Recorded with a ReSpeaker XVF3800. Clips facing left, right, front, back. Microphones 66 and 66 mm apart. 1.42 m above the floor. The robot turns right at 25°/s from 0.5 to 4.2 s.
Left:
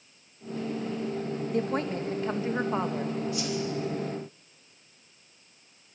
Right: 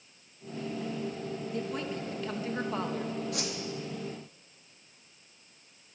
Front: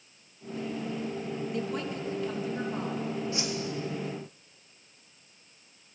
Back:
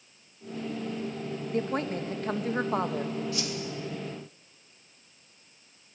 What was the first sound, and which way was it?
A woman speaking, 130° left.